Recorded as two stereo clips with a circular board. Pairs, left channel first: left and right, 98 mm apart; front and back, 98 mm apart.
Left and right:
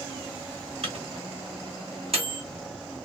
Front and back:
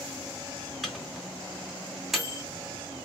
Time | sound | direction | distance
0.8 | a microwave | 90° right | 2.0 m